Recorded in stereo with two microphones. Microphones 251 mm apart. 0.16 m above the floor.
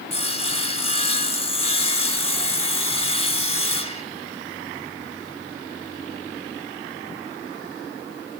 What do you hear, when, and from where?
0.1 s sawing: 25° left (ahead or behind), 1.0 m